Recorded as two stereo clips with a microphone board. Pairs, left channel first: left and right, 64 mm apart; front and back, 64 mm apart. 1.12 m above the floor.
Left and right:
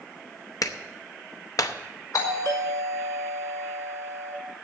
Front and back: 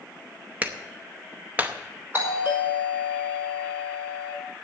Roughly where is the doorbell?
Behind left.